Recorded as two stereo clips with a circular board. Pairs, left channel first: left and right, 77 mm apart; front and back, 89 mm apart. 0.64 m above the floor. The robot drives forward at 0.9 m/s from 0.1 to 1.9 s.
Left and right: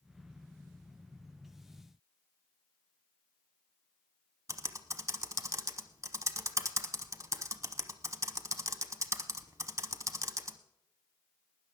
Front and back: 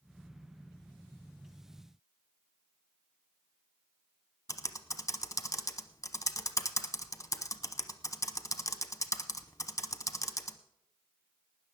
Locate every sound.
4.5 s typing on a keyboard: 45° right, 0.8 m